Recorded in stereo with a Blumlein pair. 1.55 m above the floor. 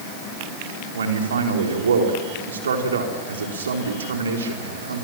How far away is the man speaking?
About 4 m.